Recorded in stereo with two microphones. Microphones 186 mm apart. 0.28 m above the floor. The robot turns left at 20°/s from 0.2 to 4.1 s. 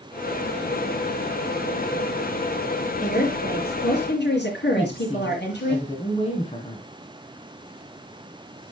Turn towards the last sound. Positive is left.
turn(degrees=30)  # may be behind; listen again after turning